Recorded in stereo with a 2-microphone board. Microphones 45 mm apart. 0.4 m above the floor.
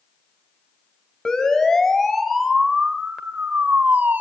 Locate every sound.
1.2 s a siren: 15° left (ahead or behind), 3.5 m; by 4.2 s 45° right (ahead or behind), 2 m